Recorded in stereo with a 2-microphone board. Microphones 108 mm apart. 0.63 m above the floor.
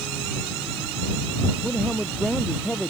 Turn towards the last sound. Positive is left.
turn(degrees=5)  # may be behind; listen again after turning